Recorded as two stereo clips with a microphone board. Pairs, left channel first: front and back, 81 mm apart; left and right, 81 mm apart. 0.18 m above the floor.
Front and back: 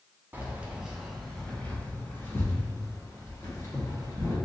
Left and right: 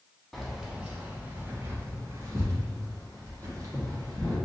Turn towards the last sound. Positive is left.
turn(degrees=-45)